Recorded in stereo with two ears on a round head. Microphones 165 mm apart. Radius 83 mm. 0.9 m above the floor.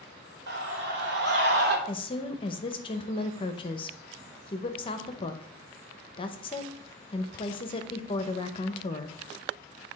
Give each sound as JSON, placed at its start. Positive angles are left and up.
{"t": 0.5, "sound": "a scream", "side_deg": -70, "distance_m": 3.0}
{"t": 1.9, "sound": "a woman speaking", "side_deg": 30, "distance_m": 0.7}